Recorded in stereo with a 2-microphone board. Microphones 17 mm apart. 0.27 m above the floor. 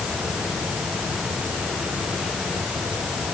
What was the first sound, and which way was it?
Only background noise.